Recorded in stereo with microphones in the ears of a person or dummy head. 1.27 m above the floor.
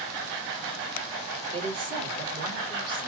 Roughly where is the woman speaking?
Right.